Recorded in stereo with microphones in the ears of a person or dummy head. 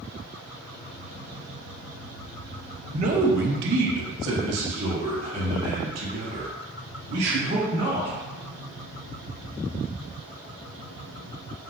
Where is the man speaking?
35° right (ahead or behind), 0.6 m; by 8.2 s 80° right, 3 m.